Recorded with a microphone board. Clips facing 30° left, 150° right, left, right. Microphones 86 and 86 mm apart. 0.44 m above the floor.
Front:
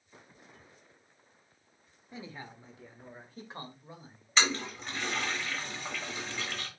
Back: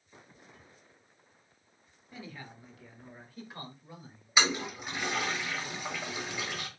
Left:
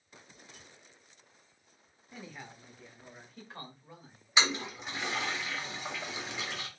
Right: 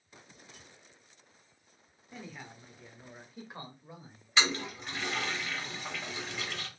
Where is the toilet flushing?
150° left, 1.0 m.